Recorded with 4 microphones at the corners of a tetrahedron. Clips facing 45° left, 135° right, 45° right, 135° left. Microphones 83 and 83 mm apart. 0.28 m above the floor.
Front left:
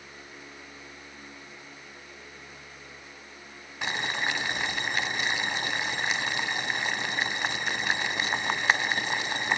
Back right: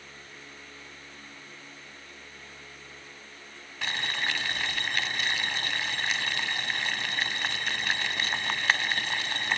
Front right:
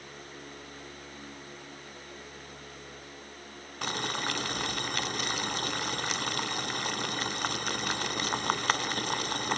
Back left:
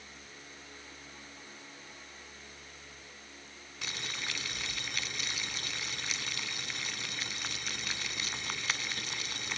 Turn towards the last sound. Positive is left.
turn(degrees=-25)